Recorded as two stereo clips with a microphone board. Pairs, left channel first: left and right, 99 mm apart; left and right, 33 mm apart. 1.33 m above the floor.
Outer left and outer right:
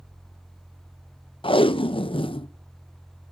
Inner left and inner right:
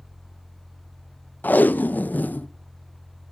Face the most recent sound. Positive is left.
turn(degrees=60)  # may be behind; listen again after turning